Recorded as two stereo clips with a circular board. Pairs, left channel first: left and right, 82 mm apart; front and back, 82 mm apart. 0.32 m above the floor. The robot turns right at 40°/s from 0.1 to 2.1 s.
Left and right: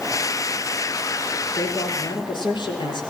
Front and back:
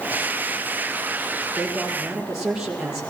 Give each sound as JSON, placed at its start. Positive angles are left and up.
{"t": 1.6, "sound": "a man speaking", "azimuth_deg": 75, "distance_m": 9.0}